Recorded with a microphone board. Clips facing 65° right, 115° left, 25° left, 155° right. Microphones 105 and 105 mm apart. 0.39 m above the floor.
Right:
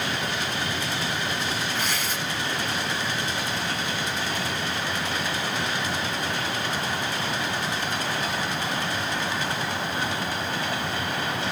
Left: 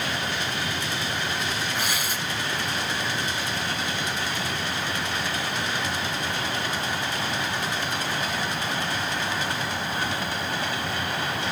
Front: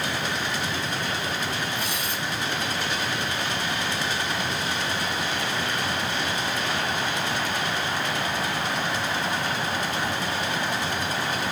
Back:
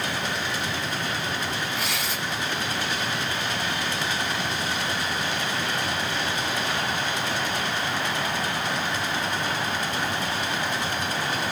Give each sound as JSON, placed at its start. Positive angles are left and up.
{"t": 1.8, "sound": "tearing paper", "azimuth_deg": -170, "distance_m": 1.2}